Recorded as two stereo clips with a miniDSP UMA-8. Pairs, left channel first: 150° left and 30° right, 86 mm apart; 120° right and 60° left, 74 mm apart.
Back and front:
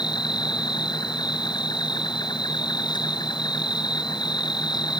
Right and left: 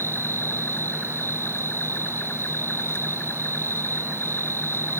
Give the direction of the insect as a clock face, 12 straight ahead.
6 o'clock.